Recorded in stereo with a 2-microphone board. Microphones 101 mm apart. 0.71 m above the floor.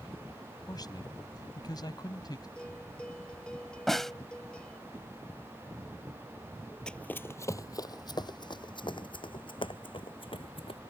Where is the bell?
10° left (ahead or behind).